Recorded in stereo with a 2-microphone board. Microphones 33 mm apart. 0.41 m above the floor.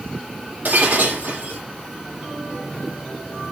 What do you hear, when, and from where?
0.7 s breaking glass: 60° right (ahead or behind), 7 m